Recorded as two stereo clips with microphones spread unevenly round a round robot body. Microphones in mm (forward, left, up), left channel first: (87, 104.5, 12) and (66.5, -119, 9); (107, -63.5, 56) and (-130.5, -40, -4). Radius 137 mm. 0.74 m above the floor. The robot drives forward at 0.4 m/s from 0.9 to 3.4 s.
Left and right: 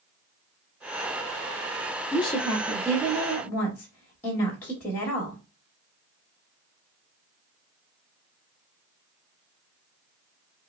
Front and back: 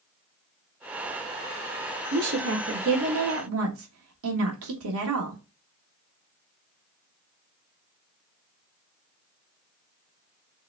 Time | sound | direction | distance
2.1 | a woman speaking | 155° left | 0.7 m